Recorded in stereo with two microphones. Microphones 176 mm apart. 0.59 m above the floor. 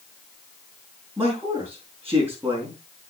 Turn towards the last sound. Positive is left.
turn(degrees=-15)  # may be behind; listen again after turning